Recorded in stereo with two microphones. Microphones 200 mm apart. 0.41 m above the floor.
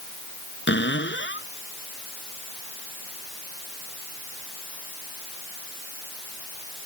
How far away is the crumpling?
No crumpling in this recording.